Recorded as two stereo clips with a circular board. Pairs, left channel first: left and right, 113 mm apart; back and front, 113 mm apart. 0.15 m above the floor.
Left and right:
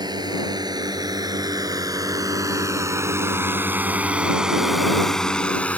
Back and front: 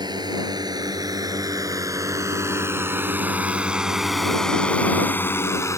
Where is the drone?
45° right; by 5.8 s 155° left.